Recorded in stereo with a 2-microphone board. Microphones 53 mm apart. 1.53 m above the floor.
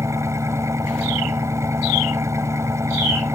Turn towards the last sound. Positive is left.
turn(degrees=-70)  # may be behind; listen again after turning